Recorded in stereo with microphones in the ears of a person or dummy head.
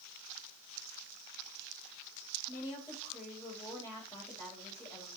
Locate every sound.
2.5 s a woman speaking: 15° left (ahead or behind), 3 m